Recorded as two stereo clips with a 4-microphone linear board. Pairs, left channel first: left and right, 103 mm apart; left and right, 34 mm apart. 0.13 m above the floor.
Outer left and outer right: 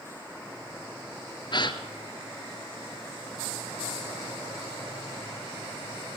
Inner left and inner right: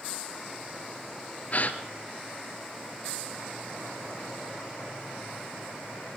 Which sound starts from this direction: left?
A gasp, at 1.5 s.